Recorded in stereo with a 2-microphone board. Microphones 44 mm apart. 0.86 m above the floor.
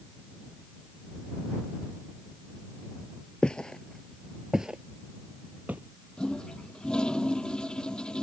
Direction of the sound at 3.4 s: 25° left (ahead or behind).